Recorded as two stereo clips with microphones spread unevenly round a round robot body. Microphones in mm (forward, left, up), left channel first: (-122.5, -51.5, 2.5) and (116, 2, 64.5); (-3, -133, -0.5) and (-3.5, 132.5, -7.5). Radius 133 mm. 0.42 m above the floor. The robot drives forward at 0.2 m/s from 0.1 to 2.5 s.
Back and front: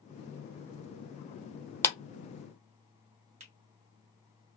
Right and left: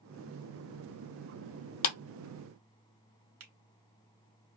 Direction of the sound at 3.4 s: 80° left.